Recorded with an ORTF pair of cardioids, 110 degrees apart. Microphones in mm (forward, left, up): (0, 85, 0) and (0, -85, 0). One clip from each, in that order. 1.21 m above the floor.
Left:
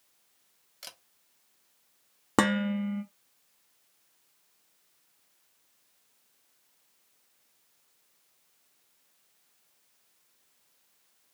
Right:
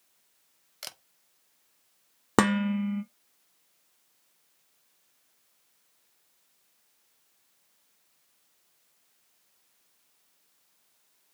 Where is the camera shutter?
25° right, 0.5 m.